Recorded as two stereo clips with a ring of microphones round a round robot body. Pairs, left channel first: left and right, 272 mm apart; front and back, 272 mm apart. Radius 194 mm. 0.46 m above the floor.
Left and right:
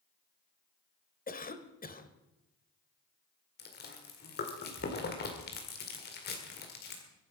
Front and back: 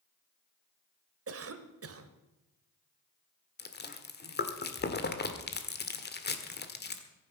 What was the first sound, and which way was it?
A cough, 150° left.